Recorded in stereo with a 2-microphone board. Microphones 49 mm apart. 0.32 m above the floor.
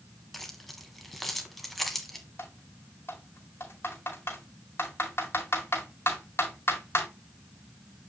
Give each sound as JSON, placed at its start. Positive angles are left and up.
{"t": 0.3, "sound": "keys jangling", "side_deg": 5, "distance_m": 1.6}
{"t": 2.4, "sound": "typing on a keyboard", "side_deg": 55, "distance_m": 2.5}